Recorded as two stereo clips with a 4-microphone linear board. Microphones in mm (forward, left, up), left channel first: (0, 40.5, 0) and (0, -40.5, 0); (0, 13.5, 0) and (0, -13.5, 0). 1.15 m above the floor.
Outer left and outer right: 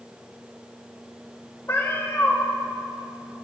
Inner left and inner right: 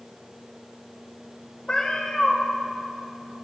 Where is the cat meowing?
35° left (ahead or behind), 2.5 m.